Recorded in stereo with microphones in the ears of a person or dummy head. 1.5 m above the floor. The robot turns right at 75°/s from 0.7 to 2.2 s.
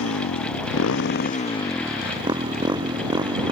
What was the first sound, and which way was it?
A motorcycle, 95° left.